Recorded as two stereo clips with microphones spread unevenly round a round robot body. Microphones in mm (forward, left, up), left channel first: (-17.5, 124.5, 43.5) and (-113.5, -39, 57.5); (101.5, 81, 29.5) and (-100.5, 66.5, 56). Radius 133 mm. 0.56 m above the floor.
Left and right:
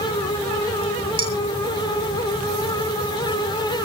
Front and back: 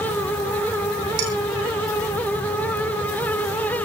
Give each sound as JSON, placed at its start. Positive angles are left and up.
{"t": 1.2, "sound": "dishes clattering", "azimuth_deg": 180, "distance_m": 7.0}